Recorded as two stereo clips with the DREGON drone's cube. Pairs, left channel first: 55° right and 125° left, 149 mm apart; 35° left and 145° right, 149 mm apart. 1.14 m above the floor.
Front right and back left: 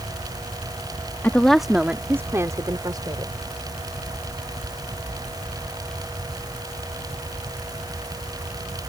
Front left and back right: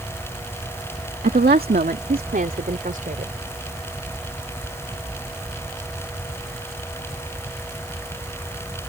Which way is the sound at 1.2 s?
135° right.